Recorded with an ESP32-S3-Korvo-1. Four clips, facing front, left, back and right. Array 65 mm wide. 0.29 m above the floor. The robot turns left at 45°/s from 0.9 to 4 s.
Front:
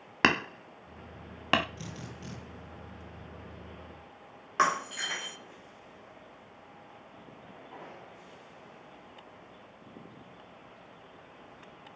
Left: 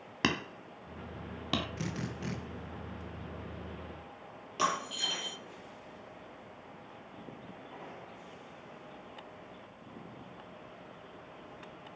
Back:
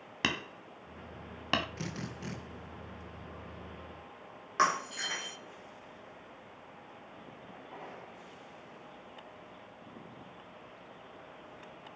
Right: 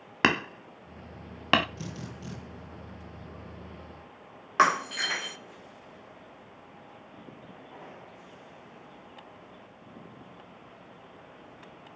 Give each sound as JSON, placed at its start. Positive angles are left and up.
{"t": 0.2, "sound": "hammering", "azimuth_deg": -40, "distance_m": 0.7}
{"t": 1.8, "sound": "a drill", "azimuth_deg": 140, "distance_m": 3.5}
{"t": 4.6, "sound": "breaking glass", "azimuth_deg": -85, "distance_m": 1.2}